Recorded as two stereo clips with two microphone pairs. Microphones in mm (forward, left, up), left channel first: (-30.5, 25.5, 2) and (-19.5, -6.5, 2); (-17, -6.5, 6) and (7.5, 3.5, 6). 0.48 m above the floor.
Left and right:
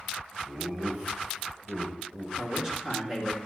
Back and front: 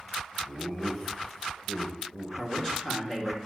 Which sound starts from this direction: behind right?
A man speaking, at 2.4 s.